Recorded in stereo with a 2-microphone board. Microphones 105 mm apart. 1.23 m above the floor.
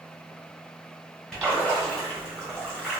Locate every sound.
1.3 s a splash: 5° left (ahead or behind), 1.4 m